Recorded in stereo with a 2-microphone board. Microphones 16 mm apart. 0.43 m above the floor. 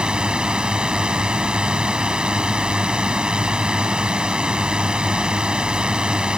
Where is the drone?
60° right (ahead or behind).